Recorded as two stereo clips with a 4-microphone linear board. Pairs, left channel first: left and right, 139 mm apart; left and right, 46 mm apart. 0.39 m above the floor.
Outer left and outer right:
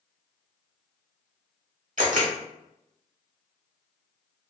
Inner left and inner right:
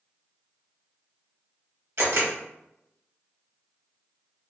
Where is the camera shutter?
65° right (ahead or behind), 1.0 m.